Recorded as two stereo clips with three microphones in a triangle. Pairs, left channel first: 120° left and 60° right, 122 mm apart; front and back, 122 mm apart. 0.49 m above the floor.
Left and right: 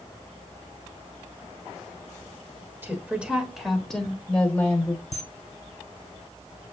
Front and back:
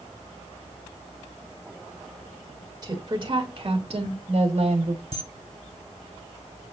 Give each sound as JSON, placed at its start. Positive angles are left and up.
{"t": 2.8, "sound": "a woman speaking", "azimuth_deg": -130, "distance_m": 1.5}
{"t": 5.1, "sound": "a camera shutter", "azimuth_deg": 145, "distance_m": 0.9}